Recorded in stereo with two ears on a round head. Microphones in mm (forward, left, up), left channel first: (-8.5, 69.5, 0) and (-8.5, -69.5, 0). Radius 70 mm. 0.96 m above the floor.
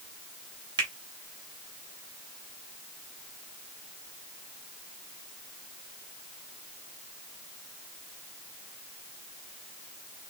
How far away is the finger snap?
About 1.3 m.